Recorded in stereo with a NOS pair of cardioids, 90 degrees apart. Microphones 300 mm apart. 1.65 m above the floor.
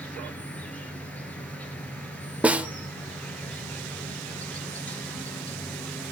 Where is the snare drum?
5° right, 0.7 m.